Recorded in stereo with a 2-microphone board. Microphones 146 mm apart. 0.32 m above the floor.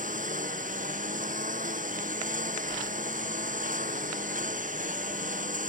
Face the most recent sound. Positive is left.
turn(degrees=-60)  # may be behind; listen again after turning